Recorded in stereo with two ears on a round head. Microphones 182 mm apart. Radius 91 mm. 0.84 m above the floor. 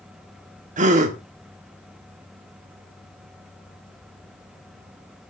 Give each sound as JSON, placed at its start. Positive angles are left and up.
{"t": 0.8, "sound": "a gasp", "side_deg": -35, "distance_m": 1.4}